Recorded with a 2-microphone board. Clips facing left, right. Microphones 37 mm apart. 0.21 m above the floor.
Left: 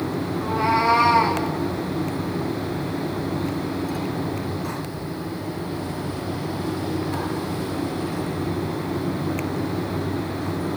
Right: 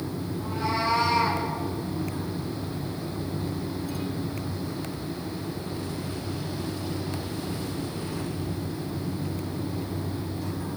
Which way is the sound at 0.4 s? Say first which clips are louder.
Left 8 dB; 90° left.